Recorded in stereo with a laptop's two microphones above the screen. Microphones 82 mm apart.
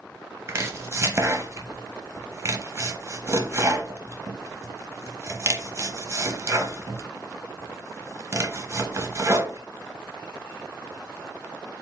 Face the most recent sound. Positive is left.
turn(degrees=-35)  # may be behind; listen again after turning